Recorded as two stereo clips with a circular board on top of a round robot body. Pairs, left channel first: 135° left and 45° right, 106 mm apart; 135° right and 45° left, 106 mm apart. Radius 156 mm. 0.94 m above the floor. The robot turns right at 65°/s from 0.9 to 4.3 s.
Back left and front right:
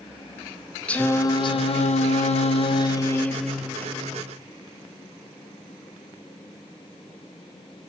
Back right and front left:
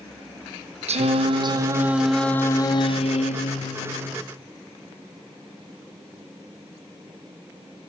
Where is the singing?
55° left, 0.9 m; by 4.2 s 90° right, 0.9 m.